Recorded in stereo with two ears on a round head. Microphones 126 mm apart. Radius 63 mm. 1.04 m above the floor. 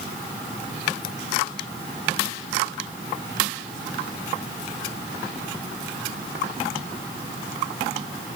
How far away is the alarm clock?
I don't hear an alarm clock.